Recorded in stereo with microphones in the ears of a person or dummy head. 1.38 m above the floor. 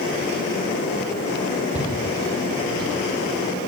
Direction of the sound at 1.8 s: 10° right (ahead or behind).